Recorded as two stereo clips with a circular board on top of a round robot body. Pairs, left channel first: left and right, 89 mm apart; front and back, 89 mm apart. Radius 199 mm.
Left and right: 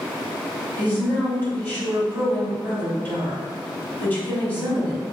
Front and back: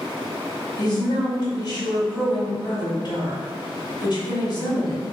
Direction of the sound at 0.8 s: 25° left.